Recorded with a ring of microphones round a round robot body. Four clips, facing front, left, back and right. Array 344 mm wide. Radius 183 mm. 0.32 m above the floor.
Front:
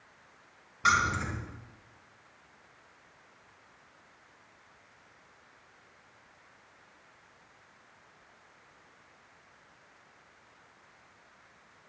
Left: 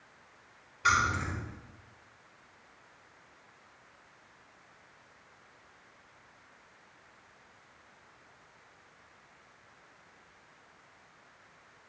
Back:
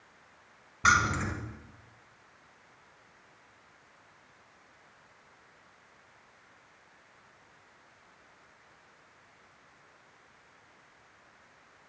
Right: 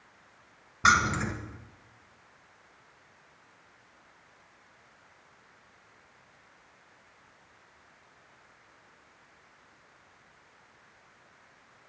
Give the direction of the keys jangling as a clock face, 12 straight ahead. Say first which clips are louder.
Right 4 dB, back 1 dB; 4 o'clock.